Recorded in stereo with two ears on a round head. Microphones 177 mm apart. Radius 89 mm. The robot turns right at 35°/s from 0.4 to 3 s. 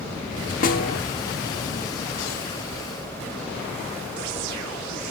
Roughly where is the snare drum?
Left.